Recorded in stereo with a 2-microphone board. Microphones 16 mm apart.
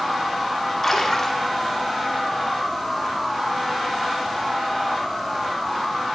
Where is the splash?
30° left (ahead or behind), 2 m.